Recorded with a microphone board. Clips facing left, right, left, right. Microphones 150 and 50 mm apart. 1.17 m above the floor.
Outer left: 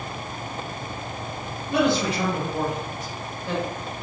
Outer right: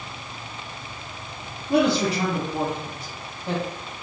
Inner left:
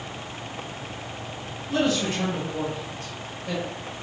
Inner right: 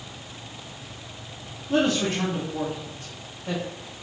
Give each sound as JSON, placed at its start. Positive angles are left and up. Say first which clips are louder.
{"t": 1.7, "sound": "a man speaking", "louder": "outer right 2 dB, inner right 1 dB", "side_deg": -40, "distance_m": 0.8}